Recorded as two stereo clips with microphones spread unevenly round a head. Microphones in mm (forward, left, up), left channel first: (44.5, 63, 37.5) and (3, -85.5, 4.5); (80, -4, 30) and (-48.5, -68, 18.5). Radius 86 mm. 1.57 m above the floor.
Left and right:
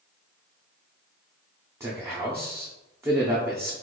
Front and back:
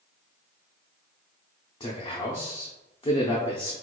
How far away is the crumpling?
No crumpling in this recording.